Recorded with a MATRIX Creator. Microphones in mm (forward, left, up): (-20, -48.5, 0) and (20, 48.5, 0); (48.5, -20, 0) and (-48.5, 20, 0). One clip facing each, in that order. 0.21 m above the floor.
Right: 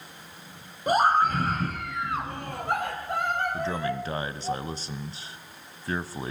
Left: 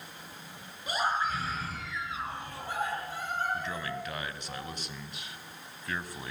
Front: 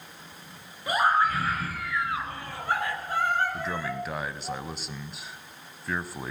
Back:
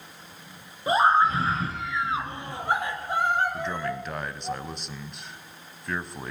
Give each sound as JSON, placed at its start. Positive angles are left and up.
{"t": 0.9, "sound": "a scream", "azimuth_deg": -140, "distance_m": 3.0}
{"t": 3.5, "sound": "a man speaking", "azimuth_deg": -105, "distance_m": 1.2}